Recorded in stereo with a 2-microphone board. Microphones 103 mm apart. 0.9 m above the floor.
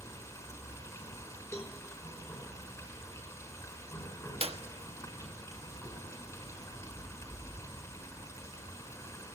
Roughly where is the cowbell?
Left.